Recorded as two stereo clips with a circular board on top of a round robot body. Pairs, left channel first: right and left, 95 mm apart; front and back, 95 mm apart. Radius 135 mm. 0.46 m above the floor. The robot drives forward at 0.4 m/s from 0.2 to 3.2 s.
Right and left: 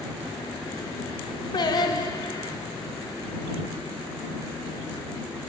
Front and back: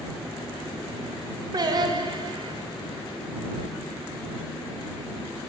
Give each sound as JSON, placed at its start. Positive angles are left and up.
{"t": 1.5, "sound": "singing", "azimuth_deg": -135, "distance_m": 1.5}